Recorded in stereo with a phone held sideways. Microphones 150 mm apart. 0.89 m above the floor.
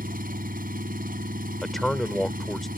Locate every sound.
0.0 s an engine running: 70° right (ahead or behind)
1.6 s a man speaking: centre (ahead or behind)